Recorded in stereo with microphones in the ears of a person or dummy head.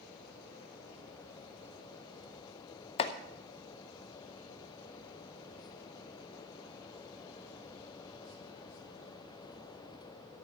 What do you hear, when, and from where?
3.0 s chopping: 30° left (ahead or behind), 0.8 m